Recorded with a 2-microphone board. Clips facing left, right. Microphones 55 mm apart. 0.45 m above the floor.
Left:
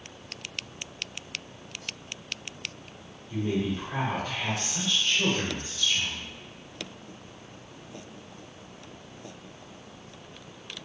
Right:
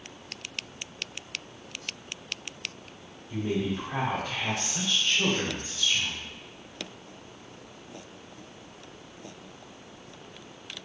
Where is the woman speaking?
5° right (ahead or behind), 1.3 m.